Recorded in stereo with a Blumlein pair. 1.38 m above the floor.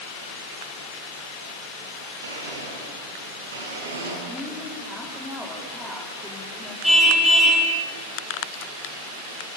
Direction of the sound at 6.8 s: Straight ahead.